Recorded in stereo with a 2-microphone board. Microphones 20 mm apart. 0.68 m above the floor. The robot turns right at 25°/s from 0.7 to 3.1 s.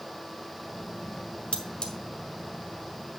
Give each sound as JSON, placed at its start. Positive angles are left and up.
{"t": 1.5, "sound": "cutlery clinking", "side_deg": 60, "distance_m": 1.4}